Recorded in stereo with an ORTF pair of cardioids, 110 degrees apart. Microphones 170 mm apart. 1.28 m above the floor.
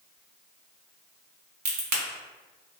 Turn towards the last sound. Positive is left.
turn(degrees=-65)